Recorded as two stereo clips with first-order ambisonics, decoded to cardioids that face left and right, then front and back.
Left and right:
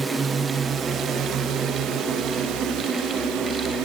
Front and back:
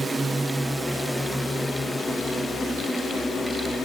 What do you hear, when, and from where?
0.0 s a drone: 135° right; by 3.9 s 70° right